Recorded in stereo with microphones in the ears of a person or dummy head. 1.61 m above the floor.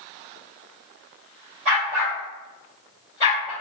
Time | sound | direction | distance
1.6 | a dog barking | 35° right (ahead or behind) | 1.7 m